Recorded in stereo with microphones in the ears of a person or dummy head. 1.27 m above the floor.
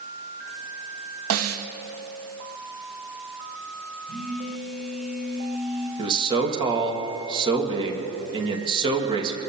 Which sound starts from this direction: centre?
A phone buzzing, at 4.1 s.